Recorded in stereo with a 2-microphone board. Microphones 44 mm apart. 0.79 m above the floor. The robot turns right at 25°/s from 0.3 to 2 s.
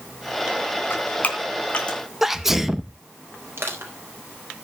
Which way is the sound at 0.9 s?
45° left (ahead or behind).